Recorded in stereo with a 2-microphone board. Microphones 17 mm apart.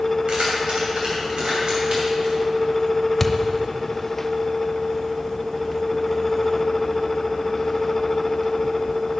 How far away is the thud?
About 0.6 m.